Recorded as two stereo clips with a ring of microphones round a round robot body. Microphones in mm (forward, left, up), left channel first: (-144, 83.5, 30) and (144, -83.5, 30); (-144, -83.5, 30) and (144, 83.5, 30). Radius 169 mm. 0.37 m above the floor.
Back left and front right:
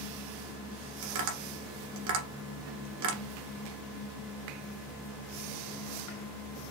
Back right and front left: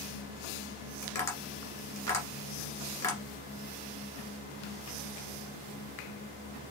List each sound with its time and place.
1.0 s tapping: 70° right, 1.6 m